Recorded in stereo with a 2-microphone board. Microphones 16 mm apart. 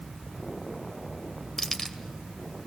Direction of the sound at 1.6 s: 20° left (ahead or behind).